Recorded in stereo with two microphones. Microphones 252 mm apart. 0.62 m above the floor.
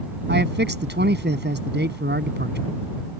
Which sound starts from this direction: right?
A man speaking, at 0.3 s.